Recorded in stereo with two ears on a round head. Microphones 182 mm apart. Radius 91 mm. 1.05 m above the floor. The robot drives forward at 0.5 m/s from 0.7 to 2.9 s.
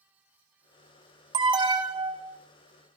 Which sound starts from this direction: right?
An alarm, at 1.3 s.